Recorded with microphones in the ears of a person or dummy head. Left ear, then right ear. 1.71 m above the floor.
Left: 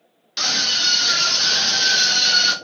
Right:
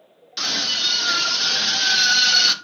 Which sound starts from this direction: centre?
A scream, at 0.4 s.